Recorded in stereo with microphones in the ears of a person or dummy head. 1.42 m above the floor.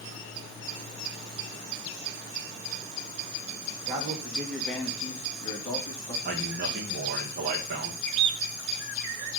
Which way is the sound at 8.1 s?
30° right (ahead or behind).